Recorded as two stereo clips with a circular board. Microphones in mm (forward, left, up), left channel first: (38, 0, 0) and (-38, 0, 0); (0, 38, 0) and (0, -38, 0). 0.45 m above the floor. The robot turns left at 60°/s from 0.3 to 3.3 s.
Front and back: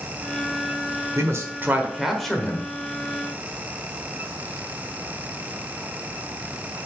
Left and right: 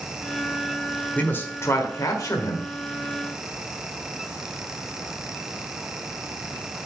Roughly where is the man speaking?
Behind left.